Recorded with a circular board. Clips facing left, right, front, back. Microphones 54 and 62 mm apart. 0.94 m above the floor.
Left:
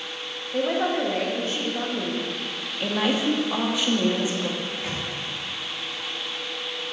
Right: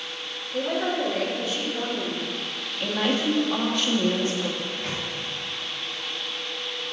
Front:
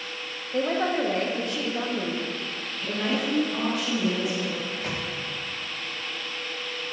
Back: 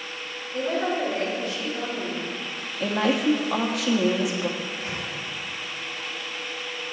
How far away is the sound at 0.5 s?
About 1.7 m.